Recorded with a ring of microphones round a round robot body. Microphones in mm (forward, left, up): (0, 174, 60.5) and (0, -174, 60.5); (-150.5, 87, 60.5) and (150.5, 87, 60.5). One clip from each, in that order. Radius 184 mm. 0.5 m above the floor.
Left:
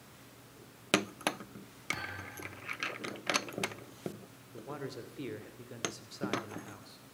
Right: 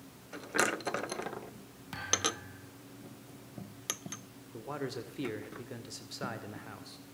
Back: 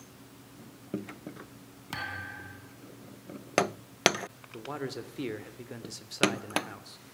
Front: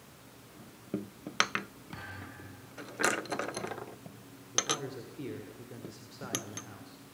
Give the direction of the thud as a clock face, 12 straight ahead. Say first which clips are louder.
Right 8 dB, back 9 dB; 6 o'clock.